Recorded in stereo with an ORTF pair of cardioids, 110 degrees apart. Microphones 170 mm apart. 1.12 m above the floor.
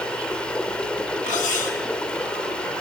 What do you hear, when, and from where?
0.0 s running water: 5° left, 2.5 m
1.3 s cutlery clinking: 45° left, 5.5 m